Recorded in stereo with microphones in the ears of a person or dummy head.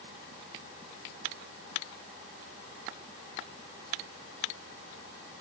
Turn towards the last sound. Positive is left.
No sound to turn to.